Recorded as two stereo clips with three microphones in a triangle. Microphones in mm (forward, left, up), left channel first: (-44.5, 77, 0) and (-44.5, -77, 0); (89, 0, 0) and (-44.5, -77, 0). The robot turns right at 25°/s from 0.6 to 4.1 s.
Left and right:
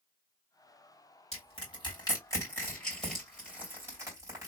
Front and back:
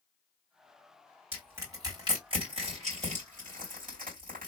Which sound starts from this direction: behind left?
Crushing, at 1.3 s.